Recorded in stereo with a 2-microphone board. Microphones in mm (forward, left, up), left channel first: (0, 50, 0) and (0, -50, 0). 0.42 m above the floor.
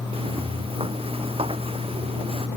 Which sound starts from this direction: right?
Footsteps, at 0.1 s.